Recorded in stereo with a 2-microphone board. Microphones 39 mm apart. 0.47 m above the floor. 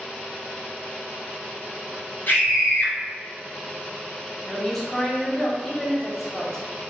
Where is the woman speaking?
Centre (ahead or behind), 1.1 m.